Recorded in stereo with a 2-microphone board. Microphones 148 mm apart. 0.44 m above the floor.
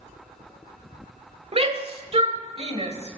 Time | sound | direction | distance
1.5 | a shout | 45° right (ahead or behind) | 1.6 m